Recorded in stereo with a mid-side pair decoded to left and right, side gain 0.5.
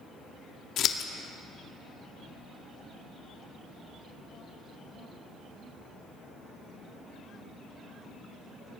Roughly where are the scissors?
Ahead left.